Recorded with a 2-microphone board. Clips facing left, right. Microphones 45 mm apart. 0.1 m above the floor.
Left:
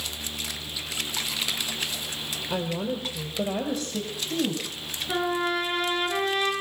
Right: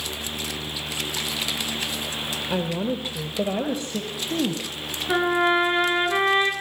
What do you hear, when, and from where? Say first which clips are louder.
2.5 s a woman speaking: right 3 dB; 25° right (ahead or behind), 3 m
5.1 s a trumpet: right 6 dB; 35° right (ahead or behind), 9.5 m